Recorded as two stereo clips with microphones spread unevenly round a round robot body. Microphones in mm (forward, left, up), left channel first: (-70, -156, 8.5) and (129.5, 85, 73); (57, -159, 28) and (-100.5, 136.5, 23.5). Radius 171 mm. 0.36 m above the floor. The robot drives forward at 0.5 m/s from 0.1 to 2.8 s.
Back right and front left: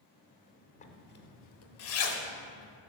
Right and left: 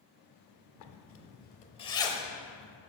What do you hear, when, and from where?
0.8 s a zipper: 80° right, 0.6 m; by 2.8 s 155° right, 1.1 m